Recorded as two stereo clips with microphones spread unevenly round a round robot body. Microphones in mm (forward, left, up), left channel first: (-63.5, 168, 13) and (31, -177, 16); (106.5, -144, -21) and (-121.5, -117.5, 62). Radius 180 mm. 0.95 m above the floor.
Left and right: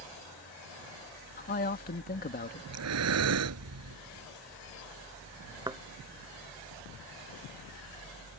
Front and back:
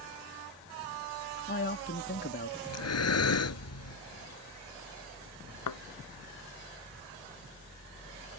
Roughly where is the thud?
Ahead.